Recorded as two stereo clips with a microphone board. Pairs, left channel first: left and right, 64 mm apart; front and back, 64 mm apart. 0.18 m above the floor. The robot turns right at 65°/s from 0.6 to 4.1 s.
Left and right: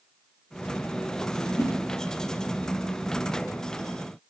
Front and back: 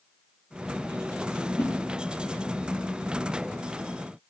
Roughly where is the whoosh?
Ahead left.